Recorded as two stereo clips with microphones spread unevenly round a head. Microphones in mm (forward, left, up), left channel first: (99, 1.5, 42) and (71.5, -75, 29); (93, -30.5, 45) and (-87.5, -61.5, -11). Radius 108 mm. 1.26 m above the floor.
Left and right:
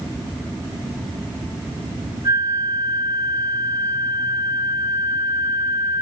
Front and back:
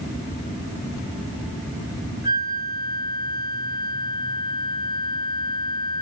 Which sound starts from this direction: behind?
A flute, at 2.2 s.